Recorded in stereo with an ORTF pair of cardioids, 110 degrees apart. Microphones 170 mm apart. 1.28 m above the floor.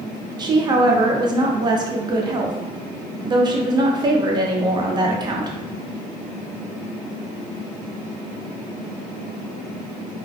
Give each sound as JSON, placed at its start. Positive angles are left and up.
{"t": 0.4, "sound": "a woman speaking", "azimuth_deg": -25, "distance_m": 0.6}